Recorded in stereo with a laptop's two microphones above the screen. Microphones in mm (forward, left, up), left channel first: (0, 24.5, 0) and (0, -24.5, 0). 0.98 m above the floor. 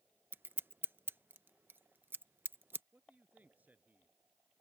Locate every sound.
0.3 s scissors: 45° right (ahead or behind)
2.9 s a man speaking: 35° right (ahead or behind)